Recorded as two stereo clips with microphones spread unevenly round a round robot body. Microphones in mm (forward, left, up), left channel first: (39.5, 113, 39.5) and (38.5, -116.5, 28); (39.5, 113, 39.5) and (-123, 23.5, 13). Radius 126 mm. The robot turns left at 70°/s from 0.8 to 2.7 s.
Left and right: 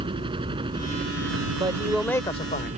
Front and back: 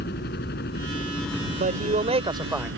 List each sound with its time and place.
0.0 s a helicopter: 20° right; by 2.8 s 155° right
1.6 s a man speaking: 150° right; by 2.7 s 130° left